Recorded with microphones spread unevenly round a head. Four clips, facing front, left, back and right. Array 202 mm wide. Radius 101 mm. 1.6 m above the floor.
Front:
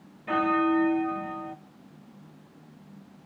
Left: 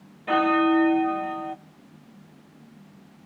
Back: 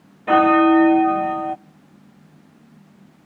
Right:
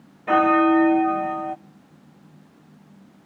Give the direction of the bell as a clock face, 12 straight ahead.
6 o'clock.